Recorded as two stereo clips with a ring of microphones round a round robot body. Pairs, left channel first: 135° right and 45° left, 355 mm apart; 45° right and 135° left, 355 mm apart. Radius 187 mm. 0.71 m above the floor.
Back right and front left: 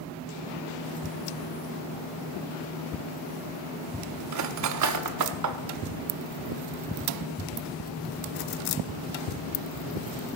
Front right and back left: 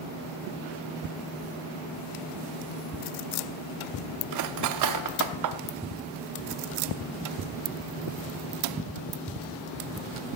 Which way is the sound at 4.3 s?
90° left.